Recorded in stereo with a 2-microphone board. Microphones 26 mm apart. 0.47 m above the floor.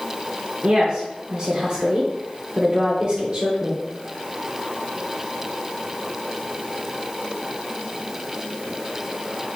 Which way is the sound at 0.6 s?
35° right (ahead or behind).